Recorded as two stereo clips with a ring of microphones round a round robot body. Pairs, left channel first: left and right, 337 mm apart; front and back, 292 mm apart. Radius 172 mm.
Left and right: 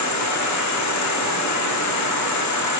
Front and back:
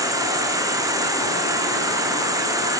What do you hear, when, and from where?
0.0 s an insect: 105° left, 0.7 m